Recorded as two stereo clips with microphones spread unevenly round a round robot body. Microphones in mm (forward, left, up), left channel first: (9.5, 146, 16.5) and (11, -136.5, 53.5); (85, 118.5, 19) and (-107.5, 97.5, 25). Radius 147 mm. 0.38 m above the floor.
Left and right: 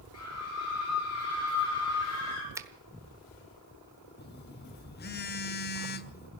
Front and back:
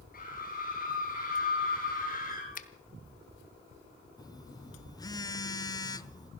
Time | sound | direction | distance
0.1 | a scream | 50° left | 6.5 m
2.5 | a finger snap | 5° right | 1.2 m
4.2 | a phone buzzing | 70° left | 1.0 m